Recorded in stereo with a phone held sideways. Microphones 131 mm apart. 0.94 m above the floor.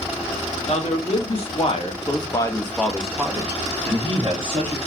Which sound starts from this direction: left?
A man speaking, at 0.7 s.